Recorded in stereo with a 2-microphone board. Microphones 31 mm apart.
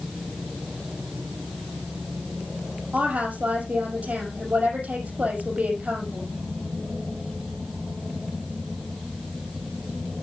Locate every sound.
2.9 s a woman speaking: 50° right (ahead or behind), 5.5 m